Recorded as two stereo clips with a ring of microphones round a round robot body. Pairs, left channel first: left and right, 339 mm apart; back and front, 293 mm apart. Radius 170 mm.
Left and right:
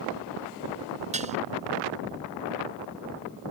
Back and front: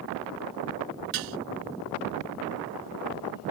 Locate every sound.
1.1 s dishes clattering: 20° right